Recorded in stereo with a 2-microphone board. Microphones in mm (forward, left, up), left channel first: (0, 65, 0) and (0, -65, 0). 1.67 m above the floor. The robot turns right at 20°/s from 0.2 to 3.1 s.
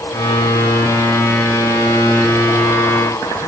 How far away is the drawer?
I don't hear a drawer.